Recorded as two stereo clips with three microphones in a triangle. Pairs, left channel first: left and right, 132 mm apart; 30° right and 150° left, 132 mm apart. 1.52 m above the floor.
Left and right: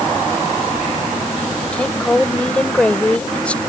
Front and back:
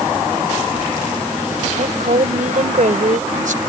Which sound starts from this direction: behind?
A woman speaking, at 1.7 s.